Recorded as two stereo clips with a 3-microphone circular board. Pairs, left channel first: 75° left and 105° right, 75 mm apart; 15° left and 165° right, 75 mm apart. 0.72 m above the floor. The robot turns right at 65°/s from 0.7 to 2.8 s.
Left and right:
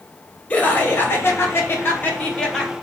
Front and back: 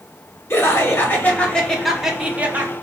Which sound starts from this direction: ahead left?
Laughter, at 0.5 s.